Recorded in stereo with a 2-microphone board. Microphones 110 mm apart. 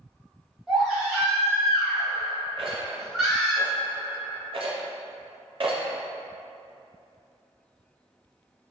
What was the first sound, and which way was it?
A baby crying, 5° right (ahead or behind).